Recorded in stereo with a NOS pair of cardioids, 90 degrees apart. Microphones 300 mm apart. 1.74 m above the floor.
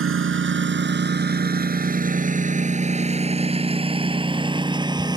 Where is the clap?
No clap in this recording.